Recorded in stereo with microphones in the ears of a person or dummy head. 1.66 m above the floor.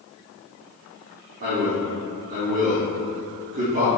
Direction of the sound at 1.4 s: 45° right (ahead or behind).